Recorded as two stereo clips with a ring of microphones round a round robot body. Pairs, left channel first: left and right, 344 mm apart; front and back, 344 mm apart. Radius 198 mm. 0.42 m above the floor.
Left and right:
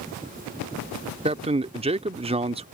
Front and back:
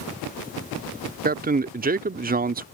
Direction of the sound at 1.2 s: 145° right.